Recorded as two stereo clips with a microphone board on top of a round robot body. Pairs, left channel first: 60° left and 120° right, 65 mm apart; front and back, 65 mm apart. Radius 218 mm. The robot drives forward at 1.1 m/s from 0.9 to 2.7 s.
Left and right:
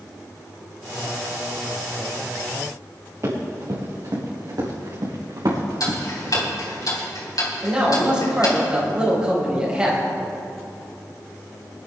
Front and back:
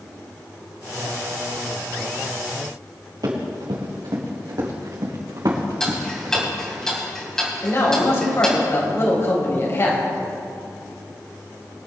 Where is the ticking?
80° left, 4 m.